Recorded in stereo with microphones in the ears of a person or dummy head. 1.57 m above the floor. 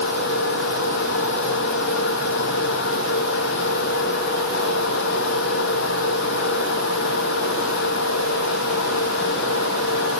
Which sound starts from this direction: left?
A fan, at 0.0 s.